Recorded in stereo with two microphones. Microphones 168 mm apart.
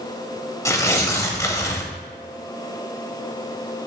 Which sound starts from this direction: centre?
Tearing paper, at 0.7 s.